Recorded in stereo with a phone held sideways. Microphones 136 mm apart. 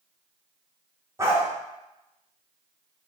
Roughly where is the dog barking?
Right.